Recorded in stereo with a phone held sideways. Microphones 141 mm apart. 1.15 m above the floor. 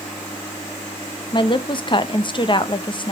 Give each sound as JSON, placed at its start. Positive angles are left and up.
{"t": 1.3, "sound": "a woman speaking", "side_deg": 35, "distance_m": 0.8}